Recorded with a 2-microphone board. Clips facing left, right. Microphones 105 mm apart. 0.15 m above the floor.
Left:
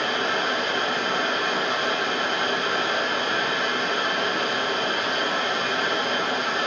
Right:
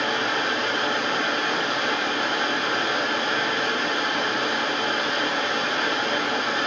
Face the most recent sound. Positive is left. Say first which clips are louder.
# even
turn(degrees=50)  # may be behind; listen again after turning